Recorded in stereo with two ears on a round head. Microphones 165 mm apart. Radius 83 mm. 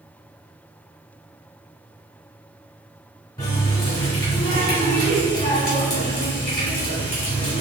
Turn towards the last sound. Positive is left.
turn(degrees=20)  # may be behind; listen again after turning